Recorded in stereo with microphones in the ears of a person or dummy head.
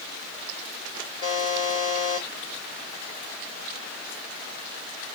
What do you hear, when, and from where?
1.2 s a buzzer: 20° left (ahead or behind), 0.8 m